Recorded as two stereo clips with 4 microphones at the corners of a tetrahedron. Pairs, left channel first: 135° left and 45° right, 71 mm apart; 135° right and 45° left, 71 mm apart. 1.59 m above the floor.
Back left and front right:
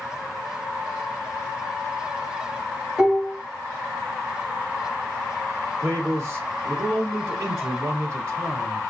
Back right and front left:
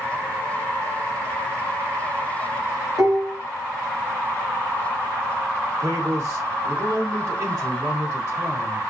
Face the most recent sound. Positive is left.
turn(degrees=0)